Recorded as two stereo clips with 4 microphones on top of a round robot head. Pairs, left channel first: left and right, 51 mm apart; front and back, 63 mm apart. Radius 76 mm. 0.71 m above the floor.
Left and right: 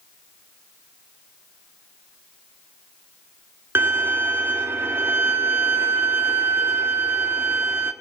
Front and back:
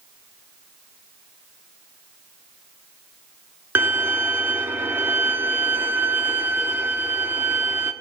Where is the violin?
125° right, 1.7 m.